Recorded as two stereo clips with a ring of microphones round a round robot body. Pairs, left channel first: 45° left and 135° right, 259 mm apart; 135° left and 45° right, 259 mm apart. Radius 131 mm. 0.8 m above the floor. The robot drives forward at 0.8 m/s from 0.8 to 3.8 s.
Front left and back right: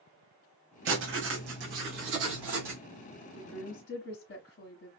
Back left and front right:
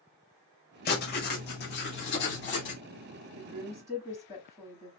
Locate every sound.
0.8 s writing: 175° right, 1.9 m
3.4 s a woman speaking: 45° left, 1.2 m; by 4.9 s 65° left, 1.1 m